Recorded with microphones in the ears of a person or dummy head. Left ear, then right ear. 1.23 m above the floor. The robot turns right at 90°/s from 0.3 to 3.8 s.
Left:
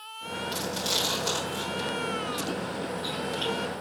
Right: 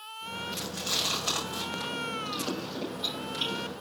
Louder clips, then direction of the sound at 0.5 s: Left 3 dB; 50° left (ahead or behind).